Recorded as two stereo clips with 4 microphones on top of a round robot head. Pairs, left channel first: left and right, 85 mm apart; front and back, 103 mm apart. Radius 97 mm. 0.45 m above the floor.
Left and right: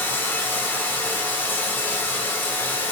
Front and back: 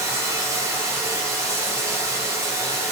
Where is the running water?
140° left, 1.3 m.